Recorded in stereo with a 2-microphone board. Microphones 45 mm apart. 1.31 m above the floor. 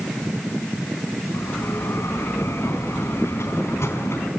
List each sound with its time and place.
1.3 s a bell: 75° left (ahead or behind), 4 m